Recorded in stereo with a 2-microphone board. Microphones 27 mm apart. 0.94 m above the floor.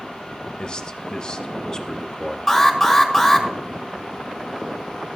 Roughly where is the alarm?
Centre.